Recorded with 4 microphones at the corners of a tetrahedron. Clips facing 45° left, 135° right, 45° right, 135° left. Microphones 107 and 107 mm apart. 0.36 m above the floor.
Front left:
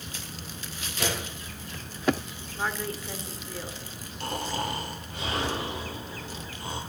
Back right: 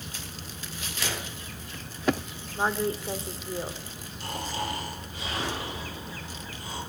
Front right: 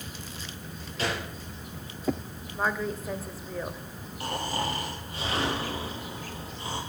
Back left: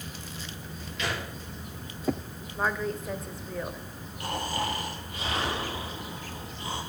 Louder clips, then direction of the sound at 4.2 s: Front left 2 dB, even; 15° left.